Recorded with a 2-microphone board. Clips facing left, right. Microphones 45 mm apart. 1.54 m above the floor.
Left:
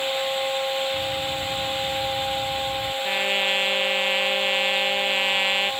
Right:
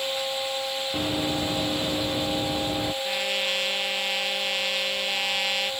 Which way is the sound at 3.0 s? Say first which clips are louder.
Left 4 dB; 25° left (ahead or behind).